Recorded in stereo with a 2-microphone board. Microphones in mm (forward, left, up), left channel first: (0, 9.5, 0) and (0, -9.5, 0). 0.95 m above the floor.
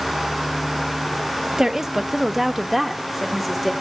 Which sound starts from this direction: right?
A woman speaking, at 1.6 s.